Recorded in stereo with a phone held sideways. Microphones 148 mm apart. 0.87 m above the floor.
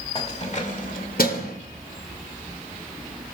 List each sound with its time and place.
0.1 s keys jangling: 40° left (ahead or behind), 1.9 m; by 1.6 s 90° left, 1.8 m